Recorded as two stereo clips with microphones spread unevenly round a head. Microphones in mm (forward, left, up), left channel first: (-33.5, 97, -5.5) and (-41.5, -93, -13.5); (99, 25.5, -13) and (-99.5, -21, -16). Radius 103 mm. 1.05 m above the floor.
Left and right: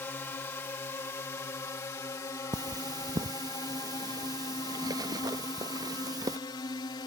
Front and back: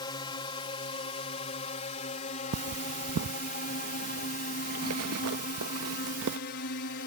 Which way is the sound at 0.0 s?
25° left.